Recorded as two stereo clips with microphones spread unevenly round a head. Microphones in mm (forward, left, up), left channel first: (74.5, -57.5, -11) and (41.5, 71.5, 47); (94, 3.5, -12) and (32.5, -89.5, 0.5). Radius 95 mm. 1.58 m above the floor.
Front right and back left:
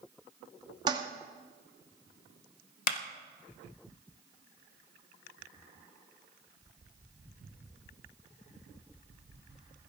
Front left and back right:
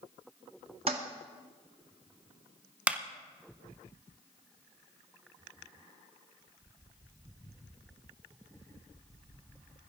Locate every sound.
0.9 s a toilet flushing: 175° left, 1.0 m
2.9 s a clap: 50° right, 1.3 m